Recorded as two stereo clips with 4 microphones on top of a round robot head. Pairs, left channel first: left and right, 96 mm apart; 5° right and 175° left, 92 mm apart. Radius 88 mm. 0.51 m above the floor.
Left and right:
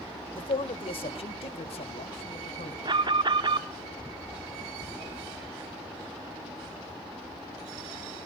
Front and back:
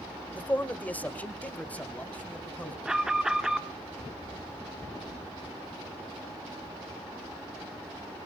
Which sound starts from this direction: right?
An alarm, at 2.9 s.